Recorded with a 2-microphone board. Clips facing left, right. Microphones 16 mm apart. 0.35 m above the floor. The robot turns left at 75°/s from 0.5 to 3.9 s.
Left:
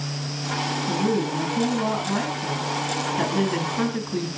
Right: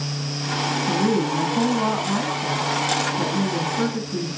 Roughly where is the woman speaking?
Right.